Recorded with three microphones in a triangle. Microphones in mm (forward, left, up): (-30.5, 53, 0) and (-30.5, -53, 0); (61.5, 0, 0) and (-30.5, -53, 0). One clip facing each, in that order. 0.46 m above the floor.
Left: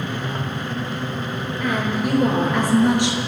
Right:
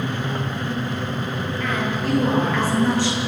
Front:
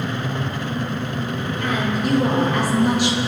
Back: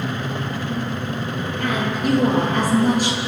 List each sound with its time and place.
1.6 s a woman speaking: 165° left, 10 m; by 3.2 s 160° left, 7.5 m